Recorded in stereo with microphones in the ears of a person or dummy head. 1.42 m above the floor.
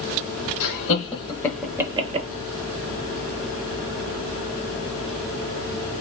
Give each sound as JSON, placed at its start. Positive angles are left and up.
{"t": 0.6, "sound": "laughter", "side_deg": 45, "distance_m": 1.1}